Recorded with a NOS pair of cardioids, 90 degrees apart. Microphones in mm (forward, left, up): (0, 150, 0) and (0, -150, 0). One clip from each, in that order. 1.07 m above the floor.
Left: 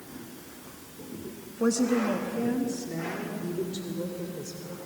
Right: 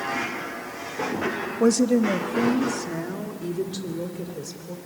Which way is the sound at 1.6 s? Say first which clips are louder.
Right 5 dB; 35° right.